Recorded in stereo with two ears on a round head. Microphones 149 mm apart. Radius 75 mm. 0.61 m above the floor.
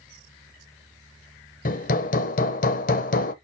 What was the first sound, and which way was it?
Hammering, 50° left (ahead or behind).